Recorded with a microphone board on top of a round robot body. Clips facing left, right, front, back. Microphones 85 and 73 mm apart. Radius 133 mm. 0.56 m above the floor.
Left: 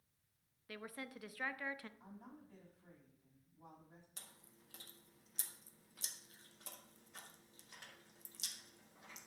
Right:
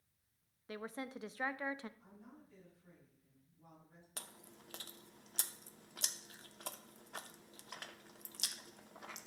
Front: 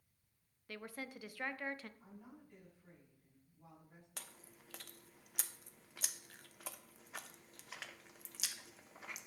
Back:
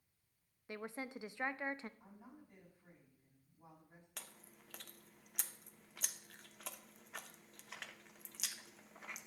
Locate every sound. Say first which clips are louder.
0.7 s a woman speaking: right 5 dB, back 2 dB; 135° right, 0.7 m
2.0 s a woman speaking: left 2 dB, front 1 dB; 110° left, 6.5 m
4.2 s chewing: right 8 dB, front 1 dB; 90° right, 0.9 m